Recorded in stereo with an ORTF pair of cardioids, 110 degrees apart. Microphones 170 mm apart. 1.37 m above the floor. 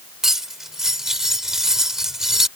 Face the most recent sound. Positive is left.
turn(degrees=0)